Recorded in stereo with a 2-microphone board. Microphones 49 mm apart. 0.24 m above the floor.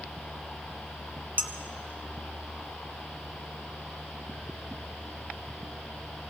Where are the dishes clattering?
35° right (ahead or behind), 1.3 m.